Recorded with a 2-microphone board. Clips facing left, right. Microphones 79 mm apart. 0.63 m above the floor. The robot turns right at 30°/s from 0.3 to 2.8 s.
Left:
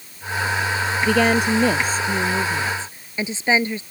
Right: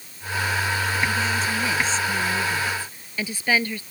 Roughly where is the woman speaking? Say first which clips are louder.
Left 7 dB; left.